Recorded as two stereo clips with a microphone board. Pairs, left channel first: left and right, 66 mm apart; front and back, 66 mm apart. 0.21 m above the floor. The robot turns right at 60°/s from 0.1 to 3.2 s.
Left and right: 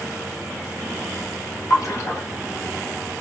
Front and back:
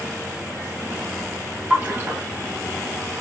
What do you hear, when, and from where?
1.7 s a splash: 105° left, 1.4 m; by 2.2 s 140° left, 1.4 m